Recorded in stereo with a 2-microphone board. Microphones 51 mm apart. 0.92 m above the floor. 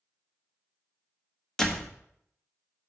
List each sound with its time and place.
1.6 s a door slam: 10° left (ahead or behind), 1.2 m